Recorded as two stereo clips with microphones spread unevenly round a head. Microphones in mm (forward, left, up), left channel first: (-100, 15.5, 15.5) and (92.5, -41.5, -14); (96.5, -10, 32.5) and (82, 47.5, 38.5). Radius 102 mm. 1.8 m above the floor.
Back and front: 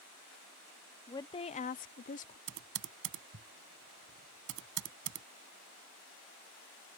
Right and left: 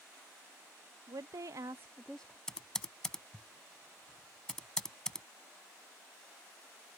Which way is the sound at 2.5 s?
5° left.